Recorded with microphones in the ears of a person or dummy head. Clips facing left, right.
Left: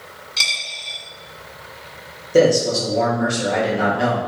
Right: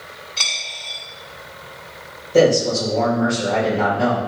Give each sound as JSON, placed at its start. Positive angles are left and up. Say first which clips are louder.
{"t": 0.4, "sound": "a dropped coin", "louder": "right 1 dB", "side_deg": 25, "distance_m": 1.7}
{"t": 2.3, "sound": "a man speaking", "louder": "even", "side_deg": 20, "distance_m": 1.4}